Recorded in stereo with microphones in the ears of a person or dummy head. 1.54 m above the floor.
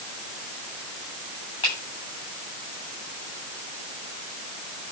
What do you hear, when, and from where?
1.6 s a finger snap: 35° left (ahead or behind), 8 m